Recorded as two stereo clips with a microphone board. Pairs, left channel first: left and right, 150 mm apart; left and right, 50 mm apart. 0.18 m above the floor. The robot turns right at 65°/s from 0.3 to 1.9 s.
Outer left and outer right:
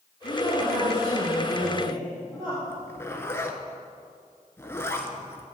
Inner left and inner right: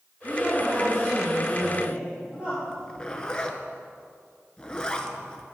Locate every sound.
0.2 s a woman speaking: 100° left, 3.5 m; by 2.6 s 155° right, 3.5 m
2.7 s a zipper: 20° left (ahead or behind), 0.9 m